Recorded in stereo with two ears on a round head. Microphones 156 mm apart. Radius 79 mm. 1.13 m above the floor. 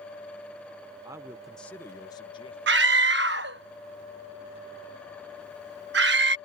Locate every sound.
1.1 s a man speaking: 20° right (ahead or behind); by 2.6 s 30° left (ahead or behind)
2.7 s a scream: 70° right (ahead or behind)